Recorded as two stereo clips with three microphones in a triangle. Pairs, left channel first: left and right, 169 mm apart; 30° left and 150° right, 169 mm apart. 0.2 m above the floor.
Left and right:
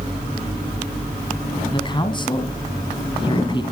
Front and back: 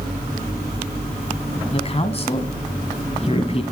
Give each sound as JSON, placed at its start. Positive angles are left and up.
{"t": 1.7, "sound": "a man speaking", "azimuth_deg": 50, "distance_m": 1.3}